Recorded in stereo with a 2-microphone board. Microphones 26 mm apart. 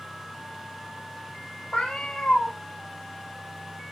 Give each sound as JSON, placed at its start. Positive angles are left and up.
{"t": 1.7, "sound": "a cat meowing", "side_deg": 40, "distance_m": 1.4}